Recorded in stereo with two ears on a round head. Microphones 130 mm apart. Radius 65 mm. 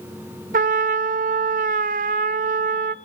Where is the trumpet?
65° right (ahead or behind), 0.7 m.